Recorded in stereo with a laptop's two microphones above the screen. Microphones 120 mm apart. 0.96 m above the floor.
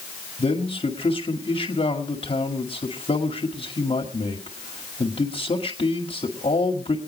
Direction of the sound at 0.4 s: 50° left (ahead or behind).